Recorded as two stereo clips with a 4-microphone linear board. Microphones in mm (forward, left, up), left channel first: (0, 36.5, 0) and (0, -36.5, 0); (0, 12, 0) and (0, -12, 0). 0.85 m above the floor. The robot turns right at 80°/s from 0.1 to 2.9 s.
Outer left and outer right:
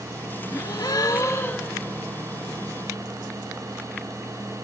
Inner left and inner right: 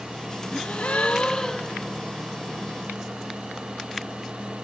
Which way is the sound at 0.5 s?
65° left.